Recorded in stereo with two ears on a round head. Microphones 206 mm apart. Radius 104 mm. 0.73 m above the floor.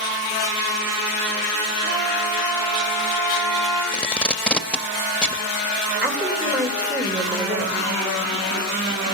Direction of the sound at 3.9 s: 5° left (ahead or behind).